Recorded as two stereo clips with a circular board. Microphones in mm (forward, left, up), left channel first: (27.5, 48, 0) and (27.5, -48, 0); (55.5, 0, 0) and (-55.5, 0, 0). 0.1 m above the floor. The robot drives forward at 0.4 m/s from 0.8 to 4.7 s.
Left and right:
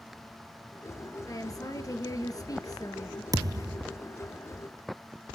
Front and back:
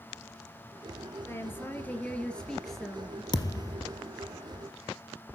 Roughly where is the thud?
Ahead right.